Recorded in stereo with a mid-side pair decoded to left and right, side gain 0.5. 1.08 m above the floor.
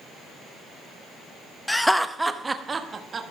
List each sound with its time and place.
1.7 s laughter: 10° left, 0.8 m; by 3.2 s 35° right, 1.3 m